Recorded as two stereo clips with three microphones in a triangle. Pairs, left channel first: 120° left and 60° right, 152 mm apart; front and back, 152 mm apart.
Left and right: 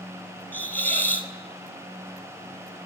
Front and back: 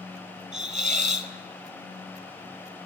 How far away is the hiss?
About 1.0 m.